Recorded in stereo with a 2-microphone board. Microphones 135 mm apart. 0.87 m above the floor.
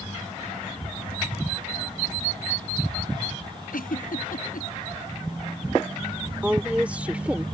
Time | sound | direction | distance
3.7 | a giggle | 85° left | ?
6.4 | a woman speaking | 10° right (ahead or behind) | ?